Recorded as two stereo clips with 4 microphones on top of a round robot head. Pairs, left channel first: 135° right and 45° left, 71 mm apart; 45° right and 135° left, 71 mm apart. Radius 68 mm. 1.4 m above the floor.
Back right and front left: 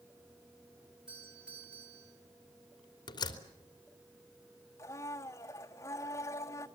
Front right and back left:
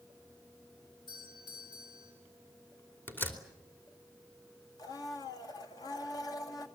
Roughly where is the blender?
Right.